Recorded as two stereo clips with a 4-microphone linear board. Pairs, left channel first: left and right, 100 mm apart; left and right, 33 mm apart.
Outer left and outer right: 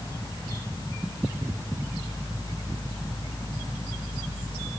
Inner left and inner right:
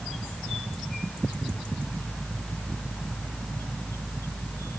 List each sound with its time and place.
Only background noise.